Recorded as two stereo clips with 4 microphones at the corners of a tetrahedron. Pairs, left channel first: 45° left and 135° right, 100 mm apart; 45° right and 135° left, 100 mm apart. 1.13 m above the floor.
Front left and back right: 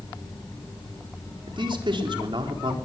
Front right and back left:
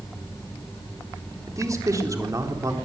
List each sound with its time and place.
1.5 s a man speaking: 170° right, 4 m